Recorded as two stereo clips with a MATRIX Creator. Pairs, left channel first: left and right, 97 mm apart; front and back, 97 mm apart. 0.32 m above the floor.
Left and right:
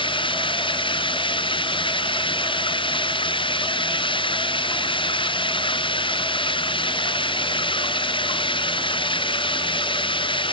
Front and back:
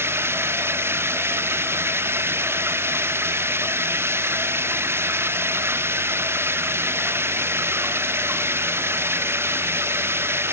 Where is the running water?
115° left.